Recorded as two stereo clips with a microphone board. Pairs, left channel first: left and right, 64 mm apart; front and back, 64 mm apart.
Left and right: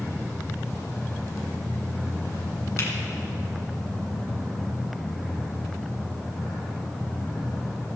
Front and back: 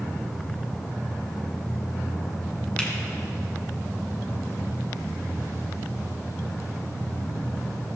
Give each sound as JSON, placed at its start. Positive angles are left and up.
{"t": 2.8, "sound": "a finger snap", "azimuth_deg": 70, "distance_m": 2.0}